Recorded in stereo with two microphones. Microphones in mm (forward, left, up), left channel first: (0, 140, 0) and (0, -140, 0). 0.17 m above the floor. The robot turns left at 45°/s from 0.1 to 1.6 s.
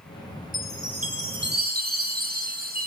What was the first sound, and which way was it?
A chime, 100° right.